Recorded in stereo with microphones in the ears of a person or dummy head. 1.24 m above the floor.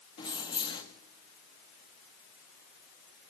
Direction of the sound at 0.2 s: 30° left (ahead or behind).